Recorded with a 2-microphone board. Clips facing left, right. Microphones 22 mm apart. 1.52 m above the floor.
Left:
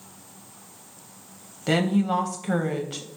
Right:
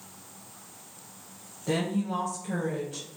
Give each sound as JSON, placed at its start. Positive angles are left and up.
{"t": 1.7, "sound": "a woman speaking", "side_deg": 65, "distance_m": 0.5}